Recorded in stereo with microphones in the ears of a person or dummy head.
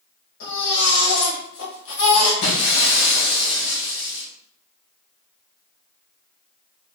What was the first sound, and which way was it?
A baby crying, 55° left (ahead or behind).